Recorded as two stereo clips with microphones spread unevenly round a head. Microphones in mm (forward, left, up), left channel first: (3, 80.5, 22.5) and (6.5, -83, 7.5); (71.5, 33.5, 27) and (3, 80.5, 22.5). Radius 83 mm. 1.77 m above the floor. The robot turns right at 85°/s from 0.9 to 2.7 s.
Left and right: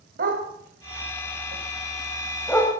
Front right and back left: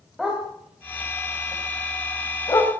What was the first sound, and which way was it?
A dog barking, 125° right.